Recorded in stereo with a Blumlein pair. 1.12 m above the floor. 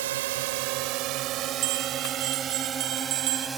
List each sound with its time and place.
0.0 s a drone: 55° right; by 3.6 s 15° right
1.6 s a bell: 45° right